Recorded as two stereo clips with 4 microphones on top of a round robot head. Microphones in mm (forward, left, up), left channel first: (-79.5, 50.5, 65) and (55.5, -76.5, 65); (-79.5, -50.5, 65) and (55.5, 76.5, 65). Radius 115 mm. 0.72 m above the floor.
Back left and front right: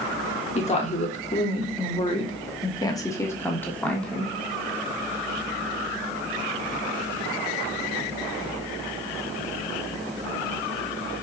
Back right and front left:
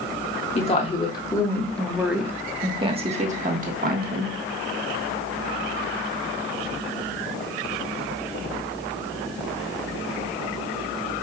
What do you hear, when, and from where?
0.6 s a woman speaking: straight behind, 1.4 m; by 4.3 s 50° left, 1.6 m